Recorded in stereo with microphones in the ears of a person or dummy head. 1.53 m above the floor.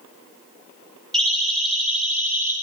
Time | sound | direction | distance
1.1 | a siren | 5° left (ahead or behind) | 5.5 m